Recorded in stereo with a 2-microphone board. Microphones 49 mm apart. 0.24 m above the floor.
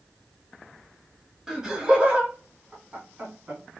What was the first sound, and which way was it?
Laughter, 10° right (ahead or behind).